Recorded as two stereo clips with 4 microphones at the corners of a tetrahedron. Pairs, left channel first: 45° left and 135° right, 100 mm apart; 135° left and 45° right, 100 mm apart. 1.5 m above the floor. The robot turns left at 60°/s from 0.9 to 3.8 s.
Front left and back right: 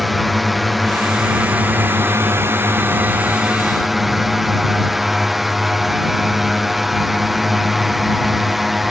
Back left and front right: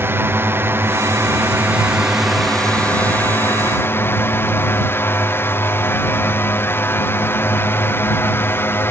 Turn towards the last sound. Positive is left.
turn(degrees=140)